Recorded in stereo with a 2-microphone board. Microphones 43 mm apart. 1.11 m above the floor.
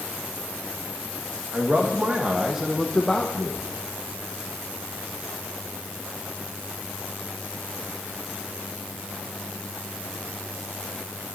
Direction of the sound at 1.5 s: 40° right (ahead or behind).